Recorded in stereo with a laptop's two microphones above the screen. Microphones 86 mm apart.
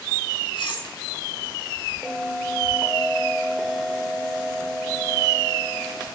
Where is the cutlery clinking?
70° left (ahead or behind), 1.2 m.